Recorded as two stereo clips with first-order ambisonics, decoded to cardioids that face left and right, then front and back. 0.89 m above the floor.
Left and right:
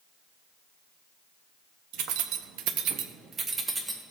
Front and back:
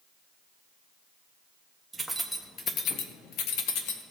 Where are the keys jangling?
100° right, 0.9 m; by 4.0 s 5° right, 1.1 m.